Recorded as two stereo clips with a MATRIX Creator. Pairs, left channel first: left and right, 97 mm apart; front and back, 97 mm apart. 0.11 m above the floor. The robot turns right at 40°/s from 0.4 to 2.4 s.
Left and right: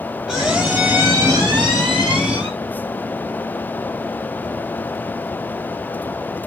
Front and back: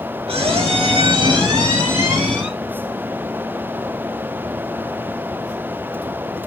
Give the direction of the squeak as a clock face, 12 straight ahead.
6 o'clock.